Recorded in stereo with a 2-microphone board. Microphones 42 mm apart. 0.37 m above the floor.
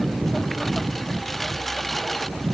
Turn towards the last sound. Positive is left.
turn(degrees=5)  # may be behind; listen again after turning